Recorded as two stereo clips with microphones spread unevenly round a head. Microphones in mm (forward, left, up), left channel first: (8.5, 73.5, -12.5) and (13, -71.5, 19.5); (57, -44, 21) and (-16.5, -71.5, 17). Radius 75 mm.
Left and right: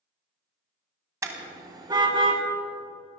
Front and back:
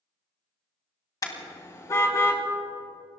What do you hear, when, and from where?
1.2 s a car horn: 20° right, 2.5 m; by 2.4 s 30° right, 2.5 m